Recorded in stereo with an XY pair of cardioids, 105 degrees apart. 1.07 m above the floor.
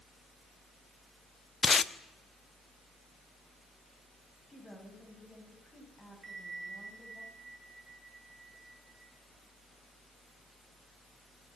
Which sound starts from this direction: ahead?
A woman speaking, at 4.5 s.